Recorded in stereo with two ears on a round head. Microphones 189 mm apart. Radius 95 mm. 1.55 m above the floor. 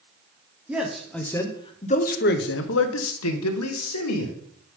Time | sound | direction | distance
0.7 | a man speaking | 5° right (ahead or behind) | 1.2 m